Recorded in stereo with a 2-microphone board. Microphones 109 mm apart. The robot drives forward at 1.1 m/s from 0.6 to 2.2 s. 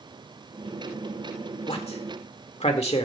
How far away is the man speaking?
About 1.9 m.